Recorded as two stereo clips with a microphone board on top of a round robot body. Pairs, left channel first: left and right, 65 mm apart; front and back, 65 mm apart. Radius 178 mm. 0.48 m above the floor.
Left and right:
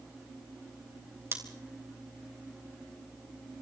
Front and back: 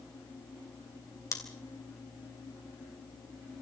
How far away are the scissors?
About 3.5 m.